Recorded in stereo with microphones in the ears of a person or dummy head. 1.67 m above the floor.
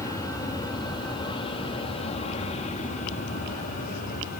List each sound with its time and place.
0.0 s an aircraft: 20° left (ahead or behind); by 4.4 s 50° left (ahead or behind)